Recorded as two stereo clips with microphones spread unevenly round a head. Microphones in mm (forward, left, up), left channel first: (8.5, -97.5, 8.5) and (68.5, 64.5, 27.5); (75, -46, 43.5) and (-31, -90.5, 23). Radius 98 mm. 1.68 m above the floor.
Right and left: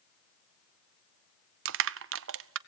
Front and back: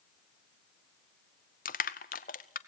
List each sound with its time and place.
1.6 s crushing: 60° left, 0.5 m